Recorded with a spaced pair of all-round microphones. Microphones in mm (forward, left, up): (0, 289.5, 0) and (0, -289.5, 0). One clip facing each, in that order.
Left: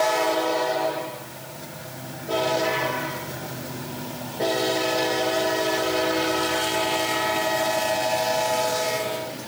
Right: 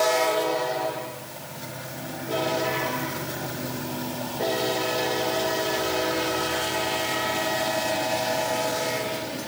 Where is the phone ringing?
I don't hear a phone ringing.